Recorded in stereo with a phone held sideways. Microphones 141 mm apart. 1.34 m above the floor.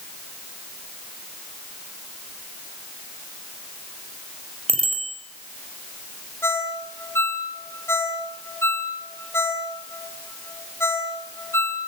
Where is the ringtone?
20° left (ahead or behind), 3.5 m.